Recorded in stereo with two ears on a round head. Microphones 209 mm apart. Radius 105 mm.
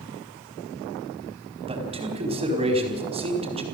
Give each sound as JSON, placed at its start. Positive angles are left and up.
{"t": 1.7, "sound": "a man speaking", "side_deg": -25, "distance_m": 4.5}